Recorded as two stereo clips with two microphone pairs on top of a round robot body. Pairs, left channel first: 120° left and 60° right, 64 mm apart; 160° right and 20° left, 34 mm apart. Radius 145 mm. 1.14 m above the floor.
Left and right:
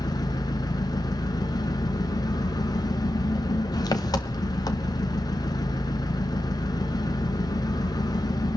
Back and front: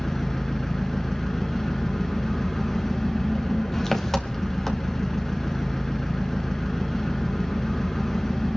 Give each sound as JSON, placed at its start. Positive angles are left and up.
{"t": 0.0, "sound": "an engine running", "azimuth_deg": 125, "distance_m": 1.2}